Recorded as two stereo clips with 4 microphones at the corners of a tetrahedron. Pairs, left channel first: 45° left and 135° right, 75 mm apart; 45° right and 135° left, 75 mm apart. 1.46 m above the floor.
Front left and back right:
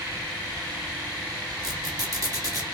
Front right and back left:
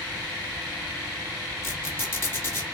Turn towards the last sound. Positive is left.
turn(degrees=-100)